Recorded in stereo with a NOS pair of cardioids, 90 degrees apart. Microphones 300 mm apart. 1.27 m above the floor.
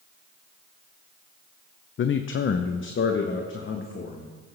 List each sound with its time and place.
2.0 s a man speaking: 40° left, 0.5 m